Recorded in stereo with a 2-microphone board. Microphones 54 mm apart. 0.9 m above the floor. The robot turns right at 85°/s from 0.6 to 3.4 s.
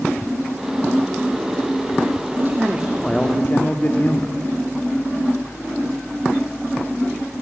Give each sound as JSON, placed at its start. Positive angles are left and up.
{"t": 2.4, "sound": "a man speaking", "azimuth_deg": -55, "distance_m": 1.7}